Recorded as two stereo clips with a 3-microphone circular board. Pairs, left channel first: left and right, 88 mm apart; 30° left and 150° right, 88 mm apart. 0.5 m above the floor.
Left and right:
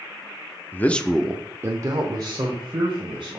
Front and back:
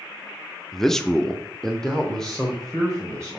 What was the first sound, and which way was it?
A man speaking, 110° left.